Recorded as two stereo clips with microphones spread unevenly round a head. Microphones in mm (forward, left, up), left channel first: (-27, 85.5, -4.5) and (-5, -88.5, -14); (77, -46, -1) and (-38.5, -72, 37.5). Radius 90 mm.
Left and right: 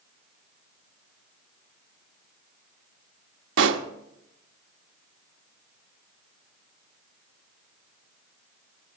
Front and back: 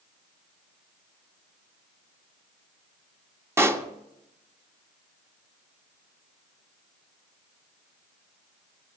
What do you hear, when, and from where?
3.6 s a pop: 100° right, 0.8 m